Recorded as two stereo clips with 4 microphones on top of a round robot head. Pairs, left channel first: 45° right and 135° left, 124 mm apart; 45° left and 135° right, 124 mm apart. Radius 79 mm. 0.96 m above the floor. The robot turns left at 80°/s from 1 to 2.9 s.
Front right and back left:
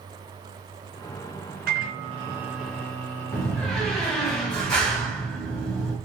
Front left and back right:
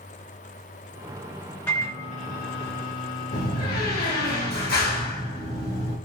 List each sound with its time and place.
1.7 s a microwave: 125° left, 4.5 m; by 4.3 s 25° left, 4.5 m
3.3 s a door slam: 40° left, 3.5 m